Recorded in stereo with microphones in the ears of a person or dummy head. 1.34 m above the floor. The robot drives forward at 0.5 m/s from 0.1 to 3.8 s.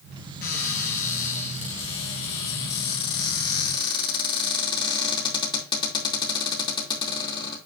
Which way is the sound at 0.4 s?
50° left (ahead or behind).